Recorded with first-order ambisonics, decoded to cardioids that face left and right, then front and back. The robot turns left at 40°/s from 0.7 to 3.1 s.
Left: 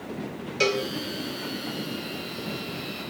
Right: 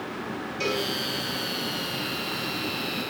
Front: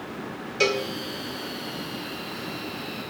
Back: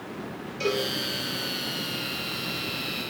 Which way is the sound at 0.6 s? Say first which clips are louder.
Left 4 dB, front 4 dB; 40° left.